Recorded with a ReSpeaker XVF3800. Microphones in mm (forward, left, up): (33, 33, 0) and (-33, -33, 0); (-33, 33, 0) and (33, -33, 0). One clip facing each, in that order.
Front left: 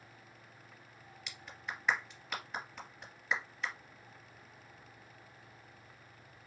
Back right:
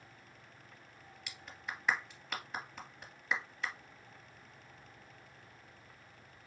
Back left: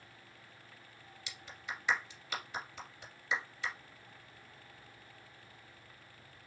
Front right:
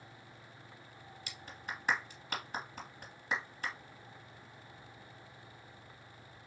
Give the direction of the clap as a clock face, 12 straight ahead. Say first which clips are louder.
Front left 1 dB, even; 2 o'clock.